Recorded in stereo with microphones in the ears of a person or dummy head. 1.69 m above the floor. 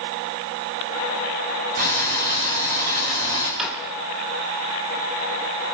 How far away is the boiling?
About 6 m.